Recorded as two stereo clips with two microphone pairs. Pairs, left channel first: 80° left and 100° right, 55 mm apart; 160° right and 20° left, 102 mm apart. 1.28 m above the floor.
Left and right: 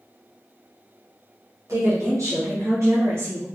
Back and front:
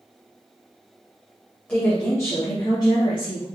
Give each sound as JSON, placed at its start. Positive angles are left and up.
{"t": 1.7, "sound": "a woman speaking", "azimuth_deg": -90, "distance_m": 1.1}